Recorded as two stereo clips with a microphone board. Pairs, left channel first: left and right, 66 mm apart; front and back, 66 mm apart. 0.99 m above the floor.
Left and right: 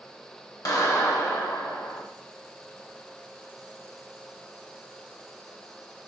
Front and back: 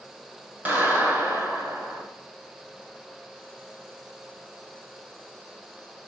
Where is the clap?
115° left, 4.5 m.